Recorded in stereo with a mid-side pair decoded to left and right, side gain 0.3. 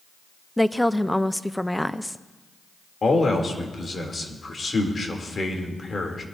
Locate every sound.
0.6 s a woman speaking: 5° left, 0.7 m
3.0 s a man speaking: 50° left, 3 m